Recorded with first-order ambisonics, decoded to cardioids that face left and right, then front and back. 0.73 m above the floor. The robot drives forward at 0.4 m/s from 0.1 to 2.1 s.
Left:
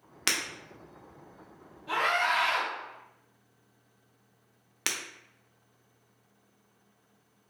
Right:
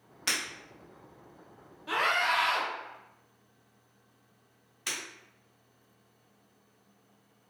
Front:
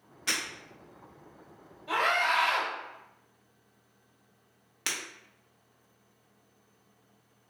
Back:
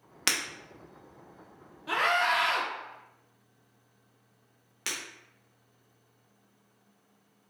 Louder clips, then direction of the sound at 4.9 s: Left 3 dB, front 2 dB; 85° left.